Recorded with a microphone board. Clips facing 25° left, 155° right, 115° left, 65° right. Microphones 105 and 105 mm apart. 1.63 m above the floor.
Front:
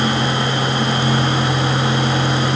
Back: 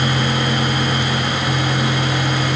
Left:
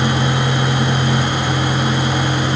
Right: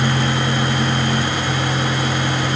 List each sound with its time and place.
Only background noise.